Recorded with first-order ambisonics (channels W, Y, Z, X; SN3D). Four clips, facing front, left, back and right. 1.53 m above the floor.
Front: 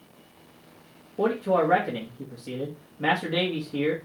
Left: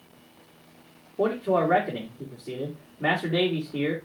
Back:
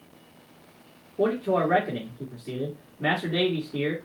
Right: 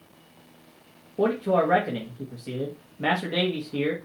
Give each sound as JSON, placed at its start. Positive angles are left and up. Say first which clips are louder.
{"t": 1.2, "sound": "a man speaking", "louder": "right 1 dB, front 1 dB", "azimuth_deg": -60, "distance_m": 1.7}